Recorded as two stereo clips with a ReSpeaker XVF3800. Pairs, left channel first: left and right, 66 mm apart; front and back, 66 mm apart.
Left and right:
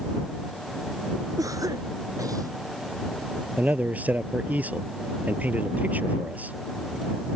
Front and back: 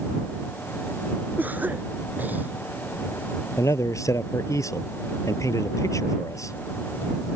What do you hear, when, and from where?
1.4 s a cough: 115° right
3.6 s a man speaking: 25° right